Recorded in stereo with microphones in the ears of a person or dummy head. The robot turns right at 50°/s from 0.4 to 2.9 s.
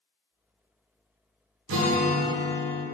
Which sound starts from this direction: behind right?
A guitar, at 1.7 s.